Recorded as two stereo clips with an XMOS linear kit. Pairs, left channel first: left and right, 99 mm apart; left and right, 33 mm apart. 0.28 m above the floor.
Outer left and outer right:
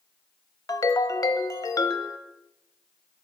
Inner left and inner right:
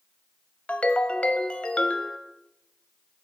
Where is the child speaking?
I don't hear a child speaking.